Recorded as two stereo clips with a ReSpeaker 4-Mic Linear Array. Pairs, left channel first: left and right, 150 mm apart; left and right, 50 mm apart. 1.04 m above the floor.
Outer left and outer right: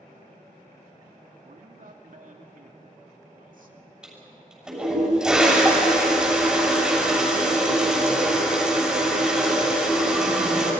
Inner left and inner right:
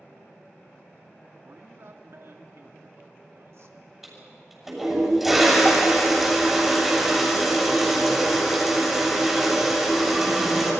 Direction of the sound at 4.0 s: 5° right (ahead or behind).